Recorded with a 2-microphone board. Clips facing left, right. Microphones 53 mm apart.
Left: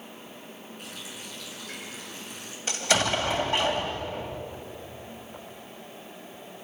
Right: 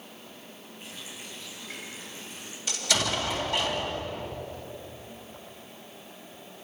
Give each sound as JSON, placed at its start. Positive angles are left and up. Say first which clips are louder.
{"t": 0.8, "sound": "a running tap", "louder": "even", "side_deg": 70, "distance_m": 7.5}
{"t": 2.7, "sound": "an explosion", "louder": "left 4 dB", "side_deg": 35, "distance_m": 3.0}